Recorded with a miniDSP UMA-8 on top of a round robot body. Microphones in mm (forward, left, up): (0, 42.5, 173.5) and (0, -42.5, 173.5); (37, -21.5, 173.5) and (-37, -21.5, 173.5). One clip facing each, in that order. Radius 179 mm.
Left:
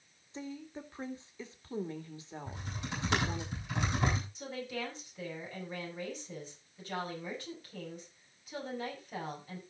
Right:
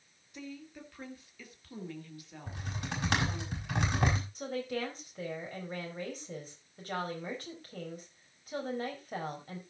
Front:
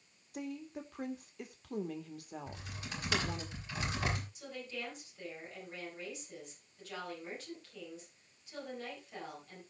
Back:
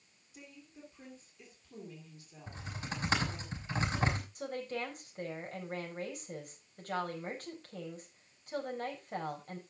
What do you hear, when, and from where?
0.3 s a woman speaking: 30° left, 2 m
2.5 s typing on a keyboard: 125° right, 5 m
4.3 s a woman speaking: 135° right, 4.5 m